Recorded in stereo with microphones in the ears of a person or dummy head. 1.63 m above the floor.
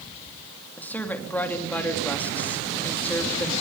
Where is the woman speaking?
10° left (ahead or behind), 2.5 m.